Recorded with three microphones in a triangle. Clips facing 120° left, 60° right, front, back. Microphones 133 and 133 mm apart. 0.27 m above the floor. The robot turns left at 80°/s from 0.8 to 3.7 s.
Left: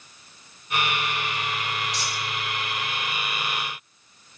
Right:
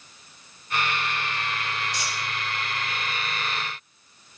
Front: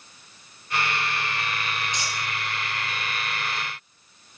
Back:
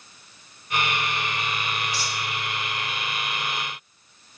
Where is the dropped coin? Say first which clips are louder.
Left 1 dB, back 1 dB; 70° right, 1.4 m; by 2.2 s 90° right, 1.4 m.